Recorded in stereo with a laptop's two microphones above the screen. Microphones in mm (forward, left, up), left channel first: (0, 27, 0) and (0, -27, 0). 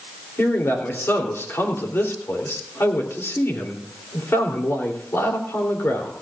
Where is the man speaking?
50° left (ahead or behind), 3.5 m.